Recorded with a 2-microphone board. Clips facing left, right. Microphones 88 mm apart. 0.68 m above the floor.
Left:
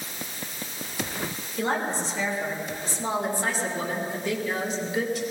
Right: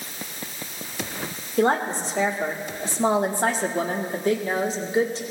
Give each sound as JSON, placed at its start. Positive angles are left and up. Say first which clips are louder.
{"t": 1.6, "sound": "a woman speaking", "louder": "right 6 dB", "side_deg": -50, "distance_m": 2.5}